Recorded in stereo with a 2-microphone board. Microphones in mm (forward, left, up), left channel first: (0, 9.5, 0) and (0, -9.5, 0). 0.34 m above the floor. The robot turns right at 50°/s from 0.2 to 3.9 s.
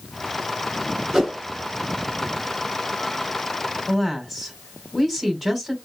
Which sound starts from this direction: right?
A whoosh, at 1.1 s.